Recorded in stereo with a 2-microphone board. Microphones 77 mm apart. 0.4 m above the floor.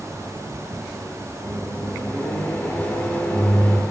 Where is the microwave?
20° left (ahead or behind), 0.6 m.